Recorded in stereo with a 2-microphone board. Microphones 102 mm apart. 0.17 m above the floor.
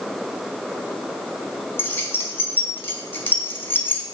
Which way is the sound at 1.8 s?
25° left (ahead or behind).